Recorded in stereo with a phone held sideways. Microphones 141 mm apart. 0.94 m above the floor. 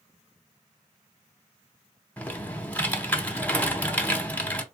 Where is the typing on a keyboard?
10° left (ahead or behind), 0.9 m.